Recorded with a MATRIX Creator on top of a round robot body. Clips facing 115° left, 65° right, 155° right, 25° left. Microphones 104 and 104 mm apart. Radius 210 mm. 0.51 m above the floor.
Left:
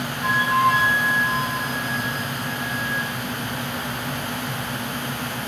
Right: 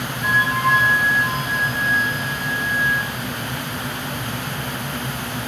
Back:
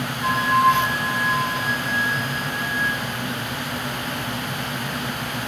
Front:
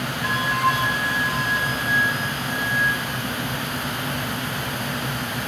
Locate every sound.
0.2 s a flute: 160° left, 0.8 m